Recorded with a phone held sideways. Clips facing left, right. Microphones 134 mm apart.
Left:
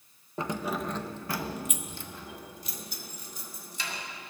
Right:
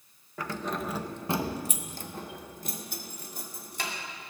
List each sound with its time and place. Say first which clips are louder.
0.4 s keys jangling: left 2 dB; 25° left (ahead or behind), 0.6 m; by 3.9 s 60° right (ahead or behind), 2 m